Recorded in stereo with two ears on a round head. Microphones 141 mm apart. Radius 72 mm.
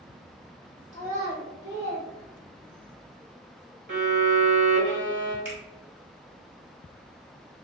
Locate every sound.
0.9 s a child speaking: 15° left (ahead or behind), 0.8 m; by 2.9 s 60° right (ahead or behind), 0.8 m
3.9 s a violin: 55° right (ahead or behind), 1.0 m
5.5 s a finger snap: 15° right (ahead or behind), 1.4 m